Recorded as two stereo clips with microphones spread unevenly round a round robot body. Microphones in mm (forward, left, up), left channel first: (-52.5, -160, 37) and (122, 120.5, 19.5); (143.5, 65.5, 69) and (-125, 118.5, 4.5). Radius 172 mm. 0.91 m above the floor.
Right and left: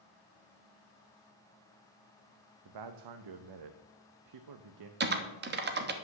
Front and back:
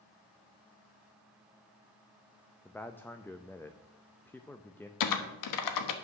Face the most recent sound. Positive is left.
turn(degrees=0)